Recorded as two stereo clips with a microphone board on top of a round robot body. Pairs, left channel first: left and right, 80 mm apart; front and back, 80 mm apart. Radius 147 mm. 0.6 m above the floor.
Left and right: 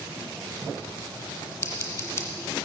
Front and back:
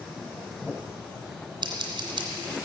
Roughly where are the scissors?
Behind left.